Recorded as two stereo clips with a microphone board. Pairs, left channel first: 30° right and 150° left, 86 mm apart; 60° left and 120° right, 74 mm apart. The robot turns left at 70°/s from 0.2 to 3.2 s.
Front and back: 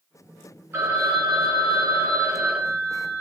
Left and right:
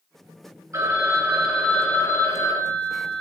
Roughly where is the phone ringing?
Behind right.